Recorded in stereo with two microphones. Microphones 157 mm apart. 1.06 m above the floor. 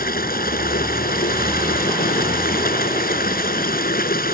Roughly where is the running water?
Left.